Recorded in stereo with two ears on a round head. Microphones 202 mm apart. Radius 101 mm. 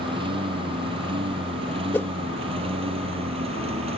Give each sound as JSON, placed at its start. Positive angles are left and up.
{"t": 0.0, "sound": "a lawn mower", "side_deg": -25}
{"t": 1.9, "sound": "a whoosh", "side_deg": 10}